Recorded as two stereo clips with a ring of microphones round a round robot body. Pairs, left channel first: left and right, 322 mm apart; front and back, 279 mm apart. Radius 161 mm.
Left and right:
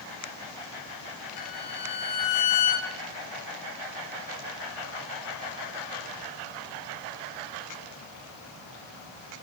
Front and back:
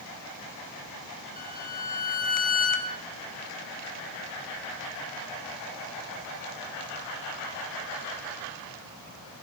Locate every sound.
1.4 s a violin: 60° left, 4.5 m